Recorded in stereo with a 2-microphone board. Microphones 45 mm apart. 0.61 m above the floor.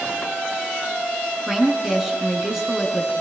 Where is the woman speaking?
10° right (ahead or behind), 6.5 m.